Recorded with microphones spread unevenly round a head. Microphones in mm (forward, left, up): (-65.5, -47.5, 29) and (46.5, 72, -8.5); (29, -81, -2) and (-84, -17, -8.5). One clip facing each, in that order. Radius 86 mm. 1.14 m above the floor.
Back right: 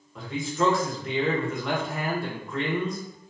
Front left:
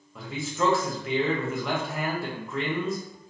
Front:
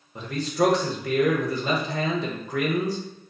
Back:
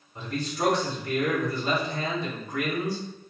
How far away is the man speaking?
About 0.7 m.